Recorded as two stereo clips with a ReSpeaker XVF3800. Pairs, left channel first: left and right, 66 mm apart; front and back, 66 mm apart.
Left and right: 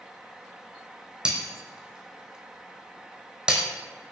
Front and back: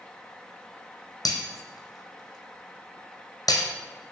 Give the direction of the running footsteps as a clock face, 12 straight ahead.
No running footsteps in this recording.